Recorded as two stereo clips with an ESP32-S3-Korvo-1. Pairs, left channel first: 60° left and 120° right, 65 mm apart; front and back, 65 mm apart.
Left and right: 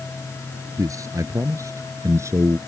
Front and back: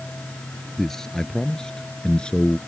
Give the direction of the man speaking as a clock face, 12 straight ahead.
3 o'clock.